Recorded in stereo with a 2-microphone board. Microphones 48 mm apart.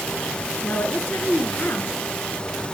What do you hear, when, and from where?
0.6 s a woman speaking: 55° left (ahead or behind), 2.5 m